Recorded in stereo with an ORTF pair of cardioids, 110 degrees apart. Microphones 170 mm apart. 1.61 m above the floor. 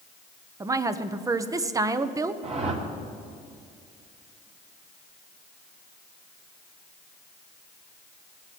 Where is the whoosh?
40° right, 2.5 m.